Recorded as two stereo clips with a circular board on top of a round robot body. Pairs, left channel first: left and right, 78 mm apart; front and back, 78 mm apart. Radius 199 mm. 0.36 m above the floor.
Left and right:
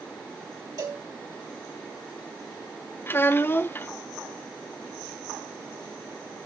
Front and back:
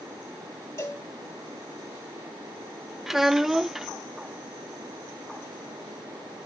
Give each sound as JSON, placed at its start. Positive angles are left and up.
{"t": 0.8, "sound": "a cowbell", "azimuth_deg": -50, "distance_m": 2.5}
{"t": 3.1, "sound": "a child speaking", "azimuth_deg": 100, "distance_m": 0.8}